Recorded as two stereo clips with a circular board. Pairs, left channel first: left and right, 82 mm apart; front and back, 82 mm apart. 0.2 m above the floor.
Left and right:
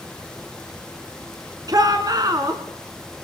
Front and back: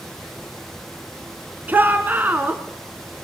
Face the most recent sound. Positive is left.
turn(degrees=-115)